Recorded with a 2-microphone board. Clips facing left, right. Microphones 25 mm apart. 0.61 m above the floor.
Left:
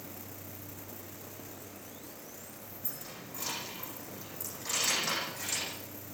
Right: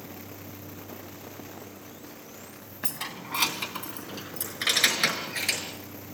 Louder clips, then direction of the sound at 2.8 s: Right 12 dB; 80° right.